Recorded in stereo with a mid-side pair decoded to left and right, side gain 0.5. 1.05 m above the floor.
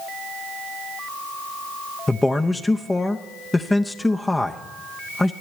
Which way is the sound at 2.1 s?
15° left.